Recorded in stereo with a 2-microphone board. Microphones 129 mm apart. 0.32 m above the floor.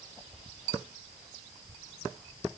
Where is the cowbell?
No cowbell in this recording.